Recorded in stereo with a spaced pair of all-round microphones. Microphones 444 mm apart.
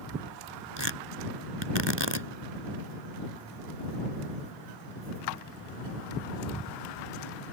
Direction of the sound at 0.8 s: 70° right (ahead or behind).